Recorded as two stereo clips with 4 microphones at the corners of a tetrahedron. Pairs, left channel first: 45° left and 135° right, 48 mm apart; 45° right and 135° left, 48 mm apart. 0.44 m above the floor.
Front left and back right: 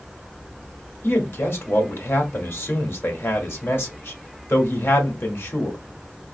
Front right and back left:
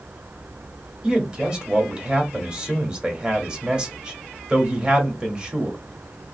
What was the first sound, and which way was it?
A man speaking, 70° left.